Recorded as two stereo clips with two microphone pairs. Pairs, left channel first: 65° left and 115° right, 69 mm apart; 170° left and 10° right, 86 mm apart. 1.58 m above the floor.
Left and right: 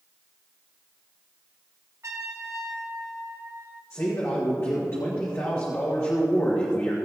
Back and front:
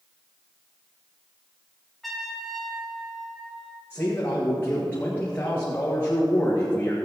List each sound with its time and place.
2.0 s a trumpet: 100° right, 1.9 m
3.9 s a man speaking: 110° left, 1.7 m